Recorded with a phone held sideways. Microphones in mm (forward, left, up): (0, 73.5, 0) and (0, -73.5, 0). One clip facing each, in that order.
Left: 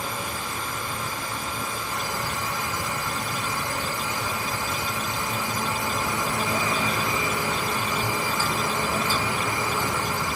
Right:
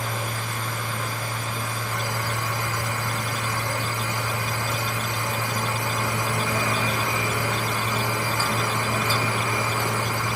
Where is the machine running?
75° right (ahead or behind), 5 m.